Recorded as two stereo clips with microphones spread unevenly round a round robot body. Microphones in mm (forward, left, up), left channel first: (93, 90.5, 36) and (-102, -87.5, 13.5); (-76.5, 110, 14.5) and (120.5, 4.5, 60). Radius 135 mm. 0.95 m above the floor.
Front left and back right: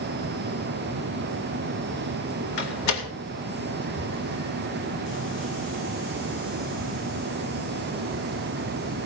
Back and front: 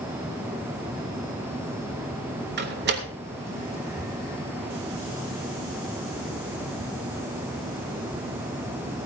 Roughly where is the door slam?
Ahead.